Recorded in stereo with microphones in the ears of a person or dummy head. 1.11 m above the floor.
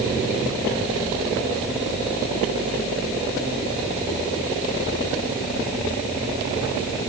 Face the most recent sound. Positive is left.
No sound to turn to.